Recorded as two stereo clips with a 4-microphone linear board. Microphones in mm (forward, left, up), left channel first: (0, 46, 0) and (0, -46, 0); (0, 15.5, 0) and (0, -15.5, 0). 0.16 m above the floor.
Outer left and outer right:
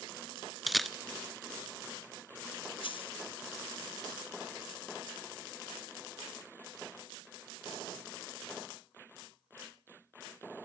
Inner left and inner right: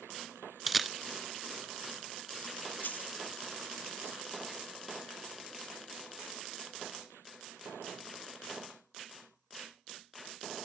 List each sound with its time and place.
0.7 s a camera shutter: centre (ahead or behind), 0.5 m
2.8 s a dropped coin: 75° left (ahead or behind), 0.8 m